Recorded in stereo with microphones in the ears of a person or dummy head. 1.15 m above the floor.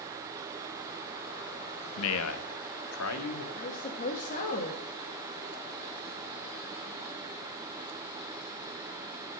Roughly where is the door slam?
I don't hear a door slam.